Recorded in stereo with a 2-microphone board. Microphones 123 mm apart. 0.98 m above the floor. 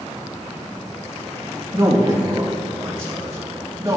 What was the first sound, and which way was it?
A man speaking, 35° right (ahead or behind).